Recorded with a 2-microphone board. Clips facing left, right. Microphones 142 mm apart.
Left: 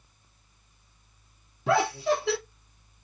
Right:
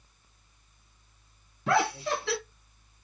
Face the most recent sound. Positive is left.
turn(degrees=5)  # may be behind; listen again after turning